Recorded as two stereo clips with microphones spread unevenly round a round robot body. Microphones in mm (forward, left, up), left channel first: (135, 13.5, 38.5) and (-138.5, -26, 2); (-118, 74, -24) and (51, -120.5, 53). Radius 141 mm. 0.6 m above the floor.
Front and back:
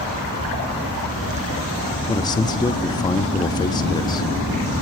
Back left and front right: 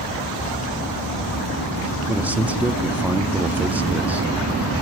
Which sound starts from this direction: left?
A man speaking, at 2.1 s.